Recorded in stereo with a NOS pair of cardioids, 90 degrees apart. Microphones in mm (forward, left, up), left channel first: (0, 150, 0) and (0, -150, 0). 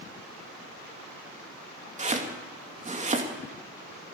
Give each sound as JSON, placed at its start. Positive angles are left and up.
{"t": 2.0, "sound": "chopping", "azimuth_deg": -25, "distance_m": 2.0}